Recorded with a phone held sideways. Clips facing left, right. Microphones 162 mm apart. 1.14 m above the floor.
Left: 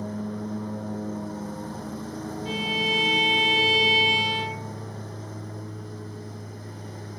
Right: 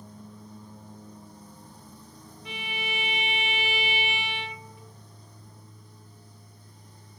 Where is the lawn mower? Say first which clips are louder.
Left 15 dB; 75° left (ahead or behind).